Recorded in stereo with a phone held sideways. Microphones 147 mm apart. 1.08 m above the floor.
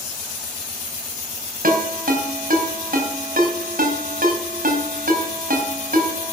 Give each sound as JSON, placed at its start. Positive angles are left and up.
{"t": 1.6, "sound": "a ringtone", "side_deg": -80, "distance_m": 3.5}